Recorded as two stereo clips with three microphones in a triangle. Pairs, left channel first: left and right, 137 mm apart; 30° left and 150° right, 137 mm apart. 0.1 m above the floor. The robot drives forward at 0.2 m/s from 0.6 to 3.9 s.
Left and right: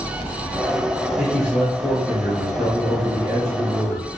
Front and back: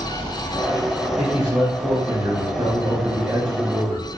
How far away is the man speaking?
About 1.5 m.